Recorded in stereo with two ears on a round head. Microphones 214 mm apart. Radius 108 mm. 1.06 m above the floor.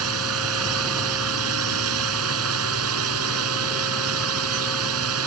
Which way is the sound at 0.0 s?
65° right (ahead or behind).